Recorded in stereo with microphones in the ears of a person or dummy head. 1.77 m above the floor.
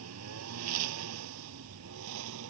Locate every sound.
0.0 s a lawn mower: 80° right; by 2.5 s 70° right (ahead or behind)